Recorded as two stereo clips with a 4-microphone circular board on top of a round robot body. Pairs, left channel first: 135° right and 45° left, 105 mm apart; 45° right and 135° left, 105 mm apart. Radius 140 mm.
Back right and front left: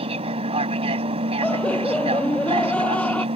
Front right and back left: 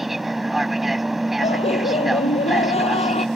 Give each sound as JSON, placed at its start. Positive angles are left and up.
{"t": 0.0, "sound": "an aircraft", "azimuth_deg": 50}
{"t": 1.4, "sound": "laughter", "azimuth_deg": -60}